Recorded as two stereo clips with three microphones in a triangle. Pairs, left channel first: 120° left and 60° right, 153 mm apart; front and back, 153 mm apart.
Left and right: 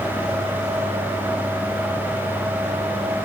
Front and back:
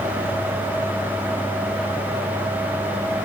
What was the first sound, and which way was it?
Only background noise.